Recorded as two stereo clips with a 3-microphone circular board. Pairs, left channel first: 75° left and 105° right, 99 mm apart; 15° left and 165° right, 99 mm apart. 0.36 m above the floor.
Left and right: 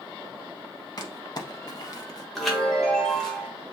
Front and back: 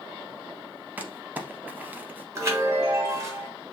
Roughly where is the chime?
Behind.